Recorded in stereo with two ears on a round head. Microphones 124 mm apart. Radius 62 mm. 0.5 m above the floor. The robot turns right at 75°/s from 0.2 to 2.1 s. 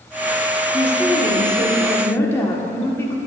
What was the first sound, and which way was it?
A woman speaking, 15° left (ahead or behind).